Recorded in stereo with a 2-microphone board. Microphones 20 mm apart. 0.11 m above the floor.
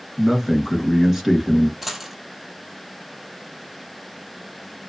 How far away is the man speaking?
About 1.4 m.